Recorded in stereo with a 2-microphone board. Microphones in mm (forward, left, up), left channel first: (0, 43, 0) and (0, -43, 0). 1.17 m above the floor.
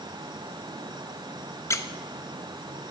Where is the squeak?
35° left (ahead or behind), 0.6 m.